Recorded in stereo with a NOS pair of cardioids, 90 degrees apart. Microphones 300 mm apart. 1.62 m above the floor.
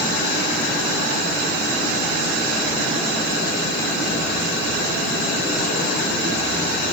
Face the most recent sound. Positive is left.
No sound to turn to.